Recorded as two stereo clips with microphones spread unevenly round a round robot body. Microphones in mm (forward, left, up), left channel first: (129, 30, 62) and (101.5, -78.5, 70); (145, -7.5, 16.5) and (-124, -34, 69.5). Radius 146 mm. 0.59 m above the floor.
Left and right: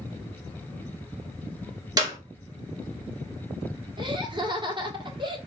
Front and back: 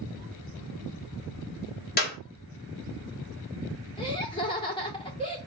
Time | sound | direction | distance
2.0 | a clap | 45° right | 2 m
4.0 | laughter | 60° right | 1.8 m